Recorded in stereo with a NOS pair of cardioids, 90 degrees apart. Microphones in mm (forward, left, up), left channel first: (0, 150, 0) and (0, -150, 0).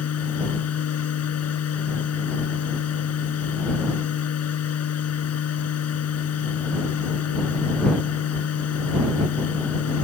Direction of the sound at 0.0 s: 55° left.